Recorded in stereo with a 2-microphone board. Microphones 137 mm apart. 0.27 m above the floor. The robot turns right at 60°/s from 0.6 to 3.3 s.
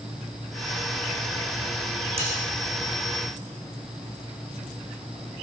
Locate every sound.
2.2 s cutlery clinking: 45° right (ahead or behind), 10 m; by 2.4 s 60° right (ahead or behind), 10 m